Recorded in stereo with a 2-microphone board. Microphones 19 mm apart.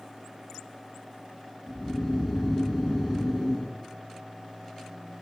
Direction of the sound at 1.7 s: 50° left (ahead or behind).